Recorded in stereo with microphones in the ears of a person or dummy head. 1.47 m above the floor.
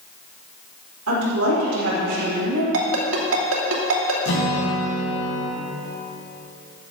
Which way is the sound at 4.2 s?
70° left (ahead or behind).